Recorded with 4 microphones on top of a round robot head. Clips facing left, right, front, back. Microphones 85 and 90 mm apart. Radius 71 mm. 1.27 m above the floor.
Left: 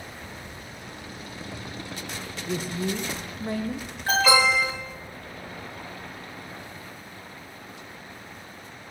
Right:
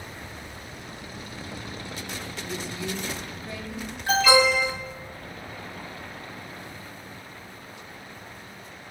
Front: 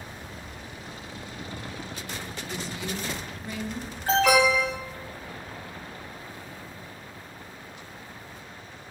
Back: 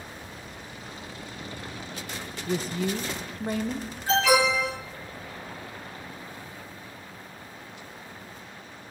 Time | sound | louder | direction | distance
2.5 | a woman speaking | left 5 dB, back 8 dB | 140° left | 0.8 m
4.1 | an alarm | right 1 dB, front 1 dB | 40° left | 4.5 m